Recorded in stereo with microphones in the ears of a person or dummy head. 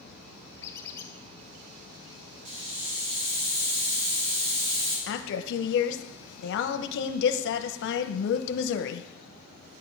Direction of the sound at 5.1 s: 65° left (ahead or behind).